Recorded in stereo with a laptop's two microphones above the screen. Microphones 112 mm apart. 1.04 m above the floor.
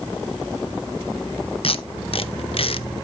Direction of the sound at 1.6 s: 55° left (ahead or behind).